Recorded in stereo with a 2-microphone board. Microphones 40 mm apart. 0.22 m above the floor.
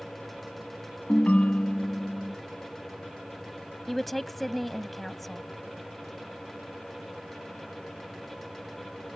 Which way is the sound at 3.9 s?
5° left (ahead or behind).